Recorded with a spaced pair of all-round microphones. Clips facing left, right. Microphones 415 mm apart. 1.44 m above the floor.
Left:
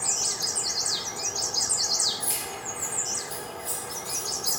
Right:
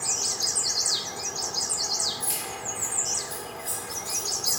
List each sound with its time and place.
2.2 s keys jangling: 20° right (ahead or behind), 0.9 m; by 4.6 s 65° right (ahead or behind), 2 m